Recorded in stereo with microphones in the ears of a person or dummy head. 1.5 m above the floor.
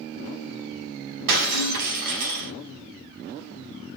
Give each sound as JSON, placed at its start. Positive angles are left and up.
{"t": 1.3, "sound": "breaking glass", "side_deg": -75, "distance_m": 4.0}